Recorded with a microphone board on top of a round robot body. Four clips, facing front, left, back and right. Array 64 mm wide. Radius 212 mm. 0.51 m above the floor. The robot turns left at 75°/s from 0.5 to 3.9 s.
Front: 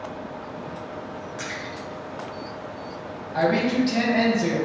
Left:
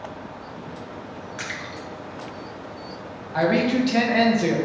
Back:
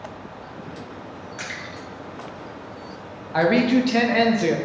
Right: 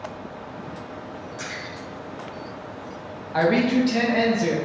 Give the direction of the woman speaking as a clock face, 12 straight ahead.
5 o'clock.